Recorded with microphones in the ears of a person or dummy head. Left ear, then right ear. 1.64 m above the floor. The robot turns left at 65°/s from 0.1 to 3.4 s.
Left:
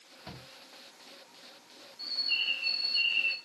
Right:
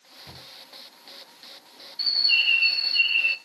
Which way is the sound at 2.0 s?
65° right.